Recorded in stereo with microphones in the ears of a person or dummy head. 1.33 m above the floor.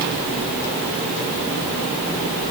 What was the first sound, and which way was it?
Only background noise.